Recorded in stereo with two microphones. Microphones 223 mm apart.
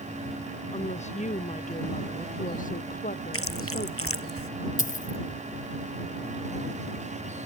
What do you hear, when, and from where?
0.7 s a woman speaking: 30° left (ahead or behind); by 4.3 s 40° left (ahead or behind)
3.3 s chewing: 75° left (ahead or behind)
4.8 s a dropped coin: 35° left (ahead or behind)